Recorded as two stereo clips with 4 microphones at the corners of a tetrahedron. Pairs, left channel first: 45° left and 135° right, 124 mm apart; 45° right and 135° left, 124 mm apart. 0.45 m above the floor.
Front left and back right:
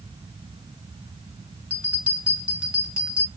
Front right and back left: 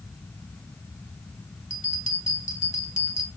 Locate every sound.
1.7 s a bell: 55° right, 1.6 m